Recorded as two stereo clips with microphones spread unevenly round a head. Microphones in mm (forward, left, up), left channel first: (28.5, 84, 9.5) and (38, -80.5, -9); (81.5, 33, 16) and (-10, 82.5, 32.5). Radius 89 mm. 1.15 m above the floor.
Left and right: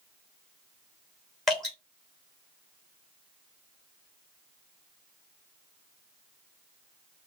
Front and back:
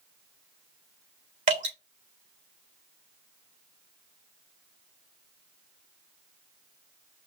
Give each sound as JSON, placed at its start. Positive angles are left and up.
{"t": 1.5, "sound": "dripping", "azimuth_deg": 180, "distance_m": 3.0}